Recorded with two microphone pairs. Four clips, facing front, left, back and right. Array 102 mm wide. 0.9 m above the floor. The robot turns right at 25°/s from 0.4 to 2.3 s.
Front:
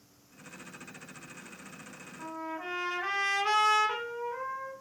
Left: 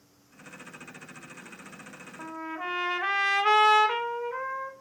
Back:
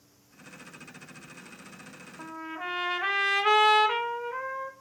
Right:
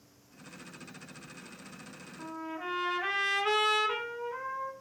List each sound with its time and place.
2.2 s a trumpet: 115° left, 1.6 m; by 4.7 s 120° left, 1.6 m